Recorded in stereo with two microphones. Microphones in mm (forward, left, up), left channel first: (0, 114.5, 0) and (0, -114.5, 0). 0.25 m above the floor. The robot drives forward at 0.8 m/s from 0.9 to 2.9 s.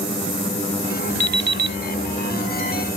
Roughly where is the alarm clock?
Right.